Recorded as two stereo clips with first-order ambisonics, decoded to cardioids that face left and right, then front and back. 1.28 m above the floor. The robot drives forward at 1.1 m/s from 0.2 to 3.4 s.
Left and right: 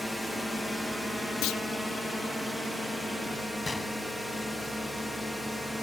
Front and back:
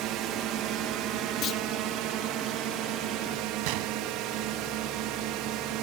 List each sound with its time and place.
0.0 s a drone: straight behind
1.4 s a clunk: 50° left; by 1.6 s 55° left
3.6 s a gunshot: 170° left